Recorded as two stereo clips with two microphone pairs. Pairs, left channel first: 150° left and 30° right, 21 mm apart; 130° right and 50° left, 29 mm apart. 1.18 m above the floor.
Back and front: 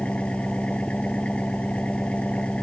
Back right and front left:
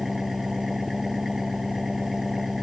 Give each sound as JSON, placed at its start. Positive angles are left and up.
{"t": 0.0, "sound": "an engine running", "azimuth_deg": 130}